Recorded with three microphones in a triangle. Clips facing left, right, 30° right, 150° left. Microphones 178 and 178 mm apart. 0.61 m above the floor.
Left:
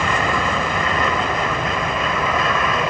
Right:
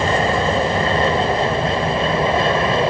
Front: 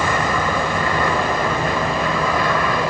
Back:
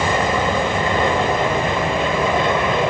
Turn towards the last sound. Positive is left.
turn(degrees=-145)